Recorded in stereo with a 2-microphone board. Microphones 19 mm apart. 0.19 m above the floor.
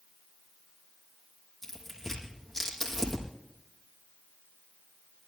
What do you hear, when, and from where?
1.6 s tearing paper: 25° left (ahead or behind), 5 m